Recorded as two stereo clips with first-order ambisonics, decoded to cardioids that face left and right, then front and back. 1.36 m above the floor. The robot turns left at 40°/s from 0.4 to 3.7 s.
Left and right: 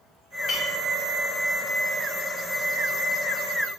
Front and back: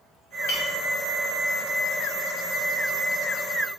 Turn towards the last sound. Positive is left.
turn(degrees=-115)